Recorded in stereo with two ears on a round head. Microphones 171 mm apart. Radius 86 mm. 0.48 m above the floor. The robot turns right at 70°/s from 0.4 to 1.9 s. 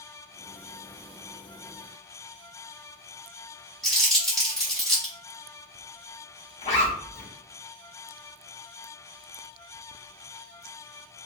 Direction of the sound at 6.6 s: 40° left (ahead or behind).